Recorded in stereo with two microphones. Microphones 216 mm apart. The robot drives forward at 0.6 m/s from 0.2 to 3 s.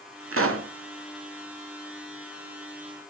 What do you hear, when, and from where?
0.3 s a pop: 70° right (ahead or behind), 0.5 m; by 0.7 s 75° right (ahead or behind), 0.5 m